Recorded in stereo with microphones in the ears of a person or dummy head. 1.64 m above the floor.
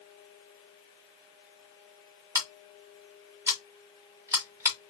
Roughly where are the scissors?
Centre.